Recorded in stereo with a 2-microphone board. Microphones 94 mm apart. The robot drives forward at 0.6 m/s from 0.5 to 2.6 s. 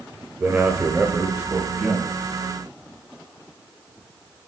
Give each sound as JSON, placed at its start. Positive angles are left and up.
{"t": 0.4, "sound": "a man speaking", "side_deg": -15, "distance_m": 1.0}